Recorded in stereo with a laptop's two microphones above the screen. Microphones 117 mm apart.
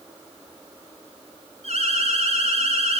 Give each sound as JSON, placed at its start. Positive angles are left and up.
{"t": 1.6, "sound": "an alarm", "side_deg": -60, "distance_m": 8.5}